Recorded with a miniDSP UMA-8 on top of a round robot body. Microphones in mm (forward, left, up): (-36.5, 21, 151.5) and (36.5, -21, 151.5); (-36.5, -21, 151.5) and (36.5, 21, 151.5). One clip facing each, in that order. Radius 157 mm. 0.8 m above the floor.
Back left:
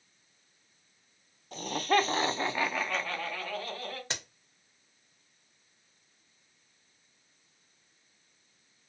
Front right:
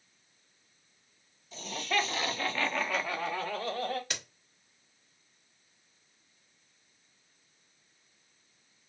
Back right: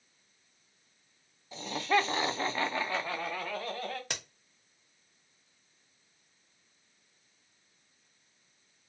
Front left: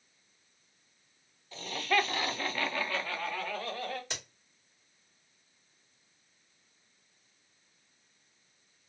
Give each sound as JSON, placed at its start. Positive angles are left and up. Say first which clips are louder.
{"t": 1.5, "sound": "laughter", "louder": "back left 5 dB, back right 2 dB", "azimuth_deg": 145, "distance_m": 0.9}
{"t": 4.1, "sound": "a crack", "louder": "back left 1 dB, back right 2 dB", "azimuth_deg": -155, "distance_m": 1.0}